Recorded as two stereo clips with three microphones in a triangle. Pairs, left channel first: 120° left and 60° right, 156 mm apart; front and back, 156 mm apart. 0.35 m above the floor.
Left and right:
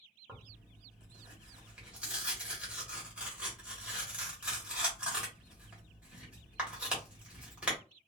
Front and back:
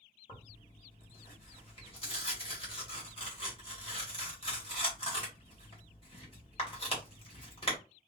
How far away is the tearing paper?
About 1.3 m.